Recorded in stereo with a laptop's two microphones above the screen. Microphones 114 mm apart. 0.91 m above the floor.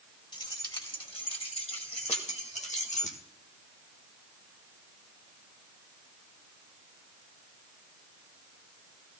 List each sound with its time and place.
0.3 s keys jangling: 45° left (ahead or behind), 4 m; by 3.2 s 80° left, 2.0 m